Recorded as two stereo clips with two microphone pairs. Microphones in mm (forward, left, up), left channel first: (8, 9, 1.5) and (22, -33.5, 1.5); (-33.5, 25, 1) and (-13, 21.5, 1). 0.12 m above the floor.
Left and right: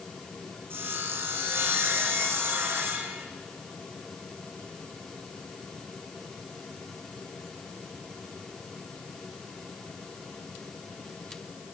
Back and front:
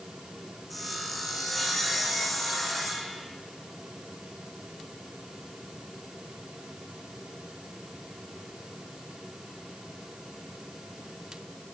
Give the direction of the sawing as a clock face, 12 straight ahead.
3 o'clock.